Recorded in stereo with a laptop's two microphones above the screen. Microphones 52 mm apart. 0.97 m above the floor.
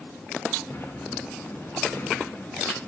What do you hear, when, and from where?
0.7 s a sliding door: 40° left (ahead or behind), 6 m